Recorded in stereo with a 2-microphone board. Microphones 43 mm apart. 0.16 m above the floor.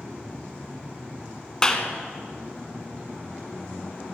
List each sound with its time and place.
1.6 s a clap: 20° left (ahead or behind), 1.4 m